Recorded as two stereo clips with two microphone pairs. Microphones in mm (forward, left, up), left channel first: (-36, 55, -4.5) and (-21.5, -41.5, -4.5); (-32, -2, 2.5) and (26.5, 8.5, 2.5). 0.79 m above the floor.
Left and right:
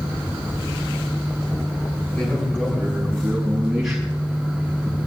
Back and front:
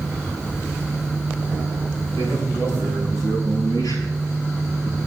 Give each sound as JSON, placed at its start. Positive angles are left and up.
{"t": 2.2, "sound": "a man speaking", "azimuth_deg": 175, "distance_m": 6.5}